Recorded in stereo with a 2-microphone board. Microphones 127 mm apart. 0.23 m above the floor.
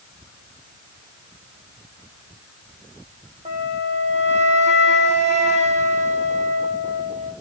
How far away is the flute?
About 2.5 m.